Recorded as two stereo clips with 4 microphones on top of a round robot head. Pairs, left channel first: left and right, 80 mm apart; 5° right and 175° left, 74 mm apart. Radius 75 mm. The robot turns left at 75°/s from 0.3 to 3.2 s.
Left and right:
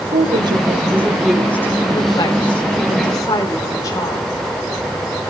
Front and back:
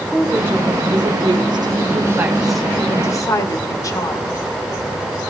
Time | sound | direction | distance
0.1 | a woman speaking | 105° right | 4.5 m